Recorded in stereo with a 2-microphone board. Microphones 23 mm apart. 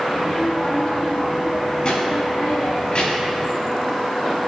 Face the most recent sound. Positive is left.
turn(degrees=45)  # may be behind; listen again after turning